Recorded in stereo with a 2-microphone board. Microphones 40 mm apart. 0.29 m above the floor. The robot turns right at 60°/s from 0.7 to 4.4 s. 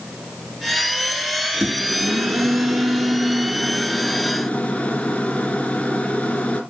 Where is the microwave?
140° right, 3.5 m; by 6.6 s 30° left, 3.5 m.